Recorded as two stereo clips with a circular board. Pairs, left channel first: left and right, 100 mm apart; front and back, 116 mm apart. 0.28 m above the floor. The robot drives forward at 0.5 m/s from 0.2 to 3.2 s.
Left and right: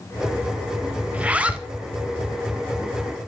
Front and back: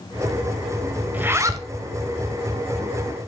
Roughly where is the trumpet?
No trumpet in this recording.